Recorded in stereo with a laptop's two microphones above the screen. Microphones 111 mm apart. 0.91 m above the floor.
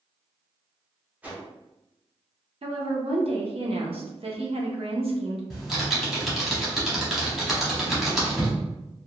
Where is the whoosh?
15° right (ahead or behind), 0.7 m.